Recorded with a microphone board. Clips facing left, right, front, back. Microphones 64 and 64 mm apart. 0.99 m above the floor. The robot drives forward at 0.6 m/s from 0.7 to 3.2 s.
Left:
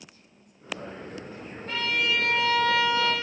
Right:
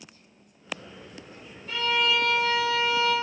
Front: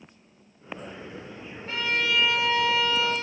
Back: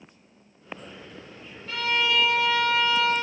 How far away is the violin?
About 1.9 m.